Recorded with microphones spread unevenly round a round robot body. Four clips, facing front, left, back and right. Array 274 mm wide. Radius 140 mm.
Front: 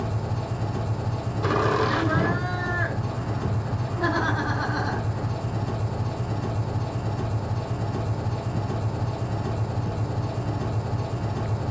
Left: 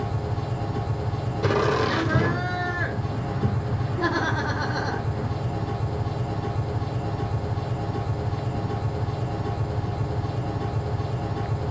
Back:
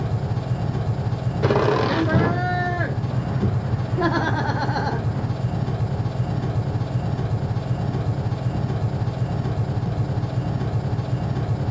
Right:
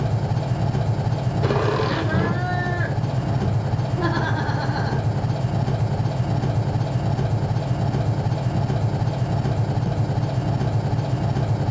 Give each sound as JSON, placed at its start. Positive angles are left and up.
{"t": 0.0, "sound": "an engine running", "azimuth_deg": -125, "distance_m": 1.0}
{"t": 1.4, "sound": "laughter", "azimuth_deg": -175, "distance_m": 1.1}